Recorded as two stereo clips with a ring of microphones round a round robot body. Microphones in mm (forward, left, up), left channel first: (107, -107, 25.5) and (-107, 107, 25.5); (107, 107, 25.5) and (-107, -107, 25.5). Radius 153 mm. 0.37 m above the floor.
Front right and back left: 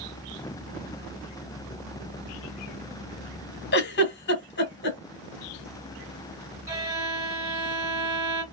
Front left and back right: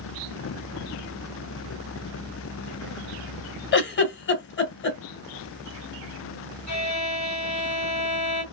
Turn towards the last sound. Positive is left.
turn(degrees=55)